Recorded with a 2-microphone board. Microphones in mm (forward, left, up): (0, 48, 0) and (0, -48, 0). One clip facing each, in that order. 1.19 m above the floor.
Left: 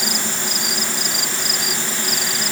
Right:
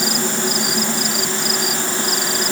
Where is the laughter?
No laughter in this recording.